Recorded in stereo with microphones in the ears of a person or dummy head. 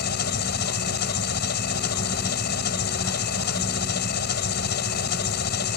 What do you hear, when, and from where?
0.0 s an engine running: 55° left (ahead or behind)